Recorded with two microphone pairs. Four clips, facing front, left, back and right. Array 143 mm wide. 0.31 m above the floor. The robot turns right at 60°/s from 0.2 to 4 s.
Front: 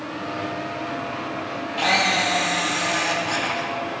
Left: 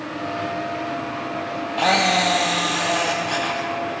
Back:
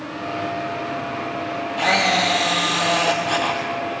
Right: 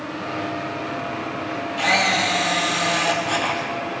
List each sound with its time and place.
1.8 s a camera shutter: 95° left, 1.5 m; by 3.6 s 155° right, 1.5 m